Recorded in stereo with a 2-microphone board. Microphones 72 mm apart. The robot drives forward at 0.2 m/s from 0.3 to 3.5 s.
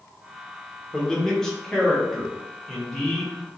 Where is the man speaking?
10° left (ahead or behind), 0.8 m; by 3.4 s 5° left (ahead or behind), 1.2 m.